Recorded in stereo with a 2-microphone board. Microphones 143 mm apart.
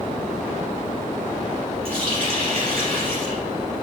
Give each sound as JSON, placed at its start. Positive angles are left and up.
{"t": 1.9, "sound": "a running tap", "side_deg": -40, "distance_m": 3.5}